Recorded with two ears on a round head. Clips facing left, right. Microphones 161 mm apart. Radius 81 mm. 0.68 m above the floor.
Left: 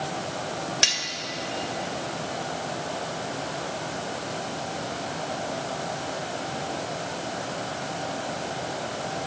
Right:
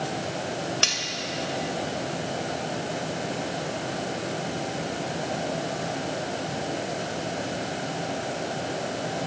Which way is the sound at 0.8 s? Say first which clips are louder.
Right 2 dB; 15° left (ahead or behind).